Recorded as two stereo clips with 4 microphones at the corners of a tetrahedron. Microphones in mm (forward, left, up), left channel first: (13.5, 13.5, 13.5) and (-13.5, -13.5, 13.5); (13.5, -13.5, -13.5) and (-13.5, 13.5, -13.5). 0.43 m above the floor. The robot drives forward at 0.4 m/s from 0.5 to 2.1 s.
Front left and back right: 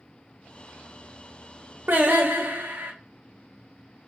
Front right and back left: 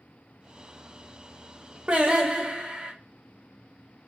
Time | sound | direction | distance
1.9 | singing | 170° right | 0.6 m